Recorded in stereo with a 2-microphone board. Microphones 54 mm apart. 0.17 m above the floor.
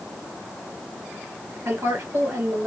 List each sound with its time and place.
1.6 s a woman speaking: 60° right (ahead or behind), 2.5 m